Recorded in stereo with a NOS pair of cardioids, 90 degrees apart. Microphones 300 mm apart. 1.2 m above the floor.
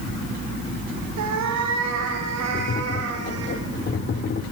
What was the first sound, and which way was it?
A cat meowing, 70° right.